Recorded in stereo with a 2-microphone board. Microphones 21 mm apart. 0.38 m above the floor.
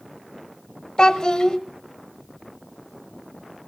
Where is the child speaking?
45° left (ahead or behind), 0.9 m.